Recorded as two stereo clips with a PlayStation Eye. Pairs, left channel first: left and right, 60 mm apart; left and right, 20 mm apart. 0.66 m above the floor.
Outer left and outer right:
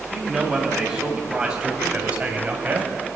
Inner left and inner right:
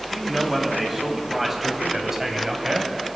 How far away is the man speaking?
About 4 m.